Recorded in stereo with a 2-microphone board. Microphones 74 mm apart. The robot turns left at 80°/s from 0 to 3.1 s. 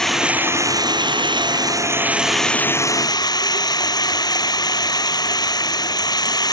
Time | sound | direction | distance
0.0 | running water | 5° left | ?